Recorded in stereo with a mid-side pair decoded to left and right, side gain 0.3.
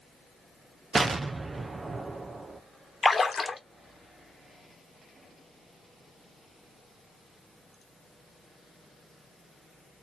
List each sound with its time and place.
0.9 s an explosion: 45° right, 0.9 m
3.0 s a splash: 40° left, 1.1 m